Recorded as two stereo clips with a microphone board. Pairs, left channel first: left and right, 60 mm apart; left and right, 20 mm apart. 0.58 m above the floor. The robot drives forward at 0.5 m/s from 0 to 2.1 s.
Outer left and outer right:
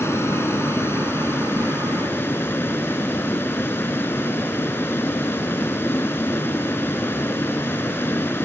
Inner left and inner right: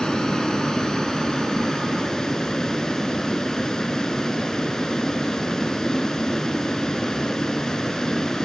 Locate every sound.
0.0 s a vehicle: 45° left (ahead or behind); by 8.4 s 35° left (ahead or behind)